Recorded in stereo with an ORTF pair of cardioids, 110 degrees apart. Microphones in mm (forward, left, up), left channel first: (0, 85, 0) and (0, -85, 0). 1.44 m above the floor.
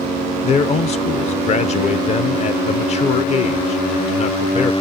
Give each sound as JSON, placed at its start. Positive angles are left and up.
{"t": 0.4, "sound": "a man speaking", "azimuth_deg": 40, "distance_m": 0.9}